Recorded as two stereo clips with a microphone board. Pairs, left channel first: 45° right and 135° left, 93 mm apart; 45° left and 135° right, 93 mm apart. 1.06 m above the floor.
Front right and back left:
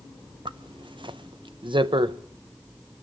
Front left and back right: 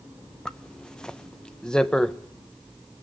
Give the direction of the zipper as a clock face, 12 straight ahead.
8 o'clock.